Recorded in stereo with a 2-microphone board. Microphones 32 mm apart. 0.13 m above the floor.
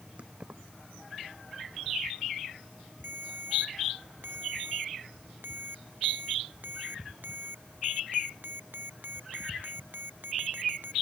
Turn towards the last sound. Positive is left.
turn(degrees=-75)  # may be behind; listen again after turning